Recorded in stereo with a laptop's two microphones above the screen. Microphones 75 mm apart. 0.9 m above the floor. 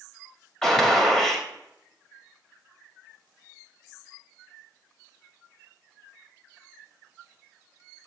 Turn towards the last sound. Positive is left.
turn(degrees=10)  # may be behind; listen again after turning